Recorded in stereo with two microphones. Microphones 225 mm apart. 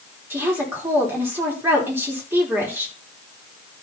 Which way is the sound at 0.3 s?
10° right (ahead or behind).